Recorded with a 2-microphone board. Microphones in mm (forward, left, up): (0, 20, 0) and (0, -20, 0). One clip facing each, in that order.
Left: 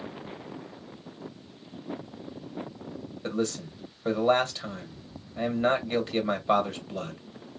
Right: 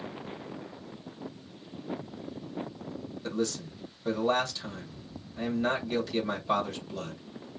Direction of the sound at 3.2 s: 35° left (ahead or behind).